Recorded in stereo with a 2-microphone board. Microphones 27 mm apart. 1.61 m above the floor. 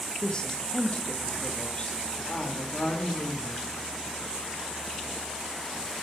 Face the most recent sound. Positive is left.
turn(degrees=65)  # may be behind; listen again after turning